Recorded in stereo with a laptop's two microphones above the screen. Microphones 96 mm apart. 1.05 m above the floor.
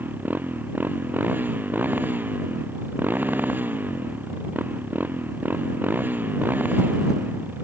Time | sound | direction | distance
0.0 | a motorcycle | 20° right (ahead or behind) | ?